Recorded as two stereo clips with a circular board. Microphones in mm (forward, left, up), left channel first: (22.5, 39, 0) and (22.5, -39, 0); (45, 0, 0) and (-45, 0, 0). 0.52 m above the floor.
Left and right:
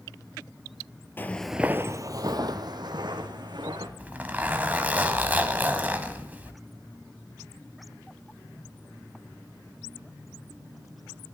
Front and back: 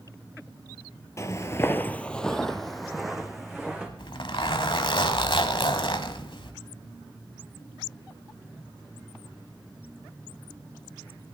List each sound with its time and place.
1.2 s footsteps: 40° left, 0.6 m; by 3.9 s 95° right, 2.5 m
4.0 s a zipper: 20° right, 1.1 m